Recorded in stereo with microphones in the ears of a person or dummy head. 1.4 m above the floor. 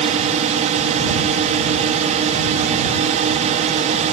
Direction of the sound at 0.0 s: 35° right (ahead or behind).